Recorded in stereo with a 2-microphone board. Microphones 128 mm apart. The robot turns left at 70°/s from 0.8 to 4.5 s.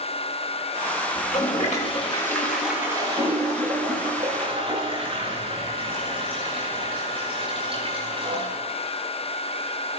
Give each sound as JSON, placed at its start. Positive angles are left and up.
{"t": 1.1, "sound": "a toilet flushing", "azimuth_deg": 100, "distance_m": 10.0}